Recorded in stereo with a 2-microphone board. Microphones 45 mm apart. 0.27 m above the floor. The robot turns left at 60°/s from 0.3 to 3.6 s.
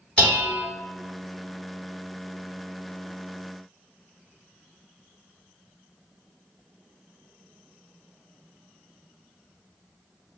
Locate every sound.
0.2 s dishes clattering: 25° left (ahead or behind), 1.5 m; by 0.6 s 40° left (ahead or behind), 1.5 m